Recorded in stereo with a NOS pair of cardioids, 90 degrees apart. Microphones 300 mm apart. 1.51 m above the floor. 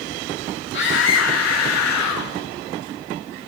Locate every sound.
0.7 s a scream: 35° left, 2.5 m; by 2.3 s 70° left, 3 m